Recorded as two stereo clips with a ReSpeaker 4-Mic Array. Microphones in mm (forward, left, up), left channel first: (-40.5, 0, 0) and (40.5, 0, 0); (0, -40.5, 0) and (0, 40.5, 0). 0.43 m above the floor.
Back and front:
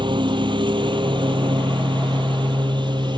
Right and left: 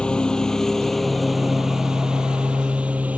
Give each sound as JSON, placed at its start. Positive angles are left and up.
{"t": 0.0, "sound": "a lawn mower", "azimuth_deg": -10}